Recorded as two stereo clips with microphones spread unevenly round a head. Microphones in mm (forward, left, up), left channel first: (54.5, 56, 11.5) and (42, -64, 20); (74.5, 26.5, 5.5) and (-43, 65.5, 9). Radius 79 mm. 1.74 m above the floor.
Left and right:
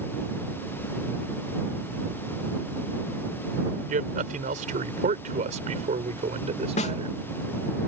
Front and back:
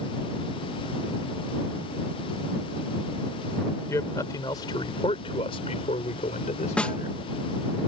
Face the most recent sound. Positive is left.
turn(degrees=60)